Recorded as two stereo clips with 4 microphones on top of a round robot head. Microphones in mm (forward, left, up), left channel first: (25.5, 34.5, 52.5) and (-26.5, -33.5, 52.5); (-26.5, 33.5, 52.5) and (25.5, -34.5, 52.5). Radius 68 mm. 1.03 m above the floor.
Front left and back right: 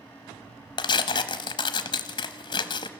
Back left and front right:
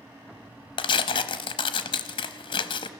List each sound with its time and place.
0.8 s tearing paper: 95° left, 0.8 m